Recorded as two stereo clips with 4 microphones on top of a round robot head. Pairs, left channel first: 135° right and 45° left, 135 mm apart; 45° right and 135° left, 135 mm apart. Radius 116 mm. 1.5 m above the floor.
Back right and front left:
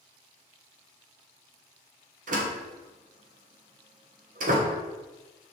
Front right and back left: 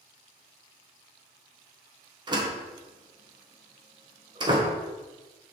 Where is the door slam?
75° left, 1.1 m.